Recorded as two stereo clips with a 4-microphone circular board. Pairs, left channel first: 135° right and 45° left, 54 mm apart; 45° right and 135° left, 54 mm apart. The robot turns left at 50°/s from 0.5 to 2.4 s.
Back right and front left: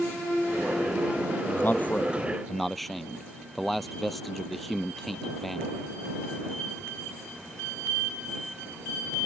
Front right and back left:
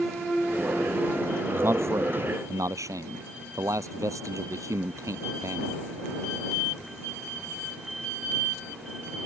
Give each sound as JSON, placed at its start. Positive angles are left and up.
{"t": 1.5, "sound": "a man speaking", "azimuth_deg": -175}